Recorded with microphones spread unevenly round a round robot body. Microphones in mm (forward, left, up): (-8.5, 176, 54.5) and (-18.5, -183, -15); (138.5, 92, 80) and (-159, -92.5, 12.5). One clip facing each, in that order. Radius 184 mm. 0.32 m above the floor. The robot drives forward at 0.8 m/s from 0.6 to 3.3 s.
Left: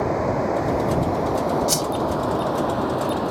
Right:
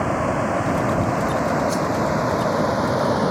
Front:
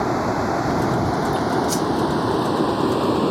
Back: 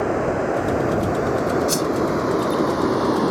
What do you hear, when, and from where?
0.0 s running water: 35° right; by 3.3 s 60° right
1.7 s a whoosh: 135° left; by 1.9 s 140° left